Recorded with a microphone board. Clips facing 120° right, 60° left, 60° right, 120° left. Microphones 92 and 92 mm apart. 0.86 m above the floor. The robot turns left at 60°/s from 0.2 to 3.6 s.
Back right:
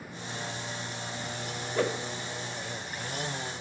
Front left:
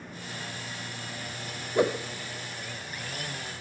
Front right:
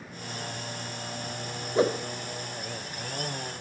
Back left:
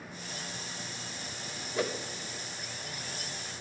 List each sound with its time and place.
1.8 s a whoosh: 5° right, 0.6 m; by 2.0 s 25° right, 0.6 m